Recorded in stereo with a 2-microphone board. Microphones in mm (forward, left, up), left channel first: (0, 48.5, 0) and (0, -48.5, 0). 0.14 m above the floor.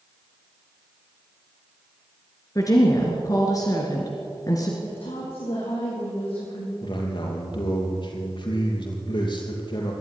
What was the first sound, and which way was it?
A woman speaking, 40° left (ahead or behind).